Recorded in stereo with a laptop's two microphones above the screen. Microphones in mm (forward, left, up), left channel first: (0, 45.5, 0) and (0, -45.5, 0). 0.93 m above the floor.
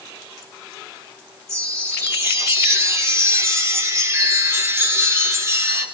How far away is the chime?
About 2.5 m.